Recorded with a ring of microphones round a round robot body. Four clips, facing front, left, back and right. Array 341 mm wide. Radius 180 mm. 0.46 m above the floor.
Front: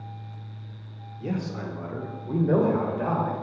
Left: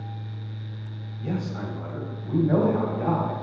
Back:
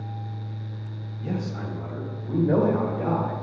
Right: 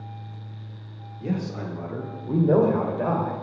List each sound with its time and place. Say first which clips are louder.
1.2 s a man speaking: right 1 dB, even; 40° right, 1.5 m; by 3.3 s 80° right, 2.5 m